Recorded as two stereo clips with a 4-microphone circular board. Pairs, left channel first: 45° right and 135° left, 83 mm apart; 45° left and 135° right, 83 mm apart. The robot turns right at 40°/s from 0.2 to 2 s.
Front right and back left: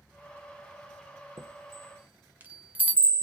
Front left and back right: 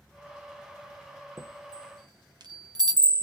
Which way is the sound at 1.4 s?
Straight behind.